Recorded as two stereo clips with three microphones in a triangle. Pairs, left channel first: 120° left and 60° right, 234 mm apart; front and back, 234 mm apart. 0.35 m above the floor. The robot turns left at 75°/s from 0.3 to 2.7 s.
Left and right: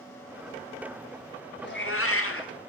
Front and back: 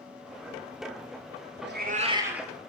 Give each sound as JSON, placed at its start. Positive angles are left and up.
{"t": 1.6, "sound": "a cat meowing", "azimuth_deg": 155, "distance_m": 0.6}